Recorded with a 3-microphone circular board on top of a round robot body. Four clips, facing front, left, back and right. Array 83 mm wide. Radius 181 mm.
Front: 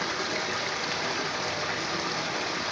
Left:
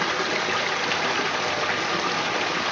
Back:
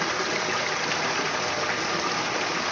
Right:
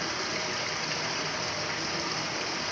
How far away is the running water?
About 1.7 m.